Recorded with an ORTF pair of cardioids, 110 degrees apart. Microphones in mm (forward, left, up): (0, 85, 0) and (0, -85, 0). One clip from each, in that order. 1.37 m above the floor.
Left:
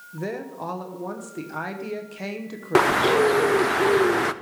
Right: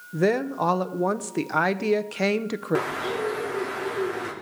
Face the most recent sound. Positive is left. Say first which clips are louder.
# left 11 dB
turn(degrees=55)